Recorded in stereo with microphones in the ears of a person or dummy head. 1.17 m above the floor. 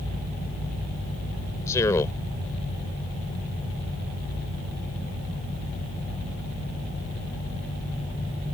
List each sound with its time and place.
1.7 s a man speaking: 20° left (ahead or behind)